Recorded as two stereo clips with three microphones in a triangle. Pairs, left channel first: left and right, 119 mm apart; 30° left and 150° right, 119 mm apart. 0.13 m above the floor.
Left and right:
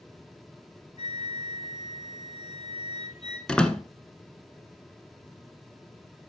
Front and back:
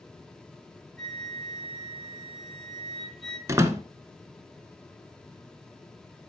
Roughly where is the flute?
Behind left.